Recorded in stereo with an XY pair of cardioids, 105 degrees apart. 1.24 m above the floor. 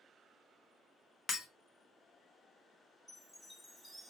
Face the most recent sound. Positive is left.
turn(degrees=10)